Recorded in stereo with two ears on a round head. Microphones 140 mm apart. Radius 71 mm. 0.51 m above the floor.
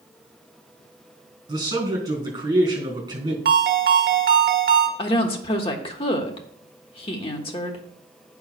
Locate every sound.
1.5 s a man speaking: 20° right (ahead or behind), 4 m
3.5 s a ringtone: 55° right (ahead or behind), 1.5 m
5.0 s a woman speaking: 35° left (ahead or behind), 1.4 m